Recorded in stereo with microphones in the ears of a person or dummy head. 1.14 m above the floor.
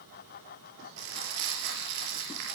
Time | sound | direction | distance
1.0 | crumpling | 65° right (ahead or behind) | 6 m